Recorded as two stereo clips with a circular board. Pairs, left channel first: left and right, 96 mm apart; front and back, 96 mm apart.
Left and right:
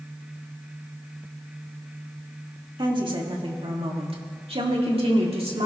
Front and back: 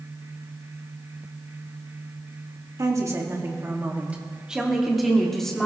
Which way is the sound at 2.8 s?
125° right.